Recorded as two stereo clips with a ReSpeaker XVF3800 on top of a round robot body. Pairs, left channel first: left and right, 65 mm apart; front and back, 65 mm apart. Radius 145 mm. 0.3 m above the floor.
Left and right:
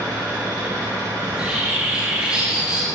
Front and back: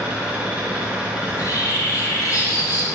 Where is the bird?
20° right, 3 m.